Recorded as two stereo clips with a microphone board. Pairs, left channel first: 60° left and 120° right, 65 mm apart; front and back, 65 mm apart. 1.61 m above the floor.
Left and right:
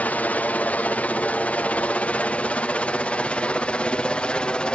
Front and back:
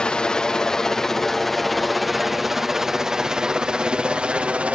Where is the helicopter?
55° left; by 4.8 s 125° left.